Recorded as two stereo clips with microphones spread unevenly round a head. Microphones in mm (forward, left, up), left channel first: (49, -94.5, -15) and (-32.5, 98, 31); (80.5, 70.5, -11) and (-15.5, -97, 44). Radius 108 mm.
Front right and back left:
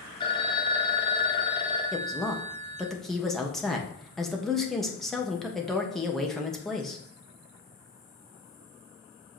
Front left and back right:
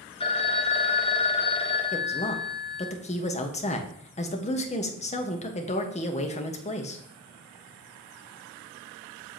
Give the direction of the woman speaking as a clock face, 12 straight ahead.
11 o'clock.